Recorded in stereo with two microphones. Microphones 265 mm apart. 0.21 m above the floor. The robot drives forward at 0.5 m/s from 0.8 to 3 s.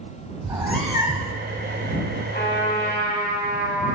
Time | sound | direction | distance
0.4 | a cat meowing | 20° right (ahead or behind) | 1.1 m
2.3 | a trumpet | 35° left (ahead or behind) | 3.5 m